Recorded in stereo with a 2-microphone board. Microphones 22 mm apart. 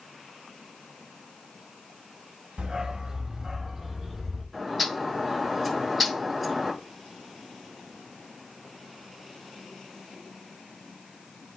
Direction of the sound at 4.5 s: 5° right (ahead or behind).